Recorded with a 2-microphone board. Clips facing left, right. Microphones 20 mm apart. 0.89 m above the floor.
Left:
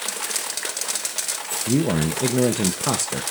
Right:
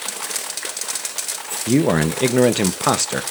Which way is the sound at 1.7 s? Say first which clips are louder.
Right 5 dB; 40° right (ahead or behind).